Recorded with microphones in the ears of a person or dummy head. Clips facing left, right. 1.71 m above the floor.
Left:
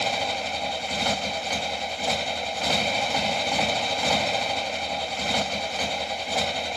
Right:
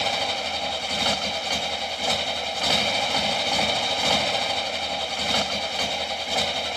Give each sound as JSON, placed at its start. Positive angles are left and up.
{"t": 0.0, "sound": "a motorcycle", "side_deg": -10}